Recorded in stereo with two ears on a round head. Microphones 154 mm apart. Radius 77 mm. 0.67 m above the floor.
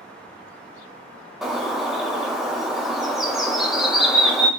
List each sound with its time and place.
1.4 s a bird: centre (ahead or behind), 0.7 m